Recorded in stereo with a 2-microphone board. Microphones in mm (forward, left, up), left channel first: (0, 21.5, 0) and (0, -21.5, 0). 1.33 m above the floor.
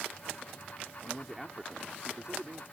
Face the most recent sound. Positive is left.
turn(degrees=-35)  # may be behind; listen again after turning